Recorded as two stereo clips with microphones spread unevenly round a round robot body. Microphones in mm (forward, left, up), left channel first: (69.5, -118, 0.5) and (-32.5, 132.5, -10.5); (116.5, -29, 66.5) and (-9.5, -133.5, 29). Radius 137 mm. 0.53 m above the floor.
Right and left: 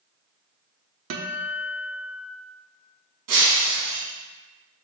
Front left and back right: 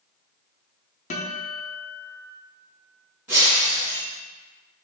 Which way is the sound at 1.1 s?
90° left.